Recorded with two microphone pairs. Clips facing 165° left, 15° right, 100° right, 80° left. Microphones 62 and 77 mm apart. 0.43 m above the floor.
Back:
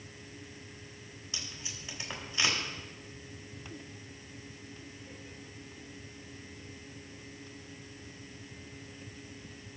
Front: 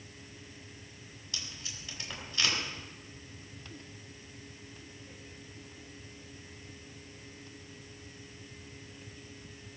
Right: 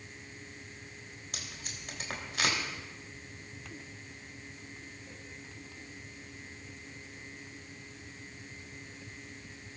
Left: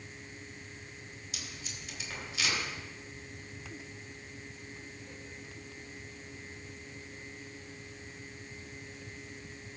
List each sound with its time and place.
1.3 s tape being pulled: 125° right, 3.5 m